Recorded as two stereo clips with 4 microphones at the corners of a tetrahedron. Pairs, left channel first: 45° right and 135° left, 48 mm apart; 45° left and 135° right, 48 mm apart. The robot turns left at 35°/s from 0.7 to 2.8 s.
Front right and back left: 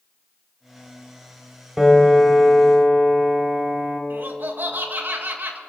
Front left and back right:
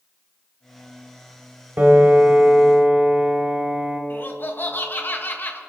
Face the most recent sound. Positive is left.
turn(degrees=90)